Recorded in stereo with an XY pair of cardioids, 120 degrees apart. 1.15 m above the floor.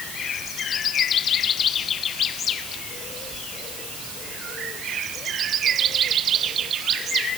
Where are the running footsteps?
I don't hear running footsteps.